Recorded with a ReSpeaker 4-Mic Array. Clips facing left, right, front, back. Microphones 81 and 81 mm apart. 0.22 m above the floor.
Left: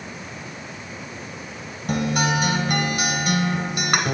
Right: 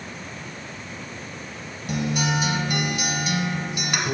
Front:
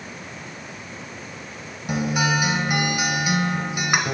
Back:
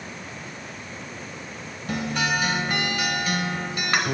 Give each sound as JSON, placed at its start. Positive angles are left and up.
{"t": 1.9, "sound": "a guitar", "azimuth_deg": 70, "distance_m": 0.7}